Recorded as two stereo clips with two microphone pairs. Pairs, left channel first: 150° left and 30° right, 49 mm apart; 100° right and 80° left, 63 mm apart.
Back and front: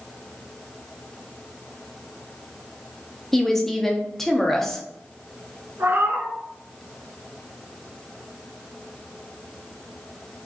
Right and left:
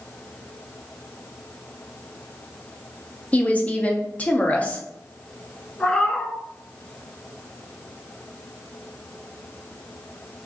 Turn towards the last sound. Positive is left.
turn(degrees=-25)